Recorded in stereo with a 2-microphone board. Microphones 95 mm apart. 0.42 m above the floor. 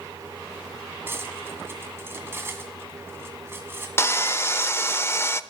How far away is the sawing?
About 0.5 m.